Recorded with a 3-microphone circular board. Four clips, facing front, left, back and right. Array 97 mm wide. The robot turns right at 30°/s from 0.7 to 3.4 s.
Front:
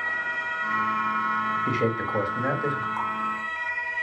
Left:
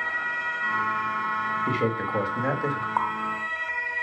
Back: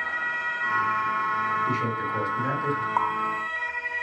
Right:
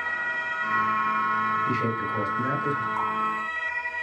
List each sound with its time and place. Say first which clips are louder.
1.7 s a man speaking: left 1 dB, front 1 dB; 35° left, 1.8 m; by 2.9 s 70° left, 1.8 m
3.0 s a running tap: left 2 dB, back 4 dB; 130° left, 1.3 m; by 3.2 s 135° left, 1.3 m